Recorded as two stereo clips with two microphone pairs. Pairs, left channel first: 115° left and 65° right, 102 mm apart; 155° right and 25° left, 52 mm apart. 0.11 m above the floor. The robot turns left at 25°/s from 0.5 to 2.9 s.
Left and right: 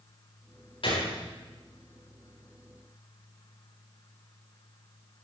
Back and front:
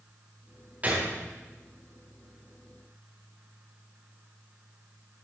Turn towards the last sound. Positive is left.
turn(degrees=35)